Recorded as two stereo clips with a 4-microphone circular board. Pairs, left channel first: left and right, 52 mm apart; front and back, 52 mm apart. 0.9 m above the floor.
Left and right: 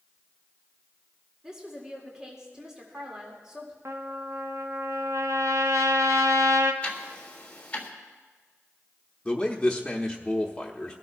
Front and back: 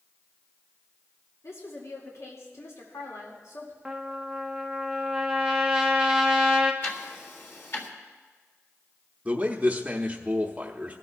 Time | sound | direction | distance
1.4 | a woman speaking | 15° right | 2 m
3.9 | a trumpet | 105° right | 1.0 m
6.8 | ticking | 30° left | 1.8 m
9.2 | a man speaking | 150° left | 0.9 m